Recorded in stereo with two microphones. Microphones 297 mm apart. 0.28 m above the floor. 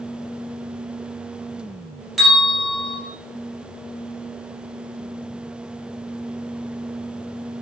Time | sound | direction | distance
2.2 | a bell | centre (ahead or behind) | 3.5 m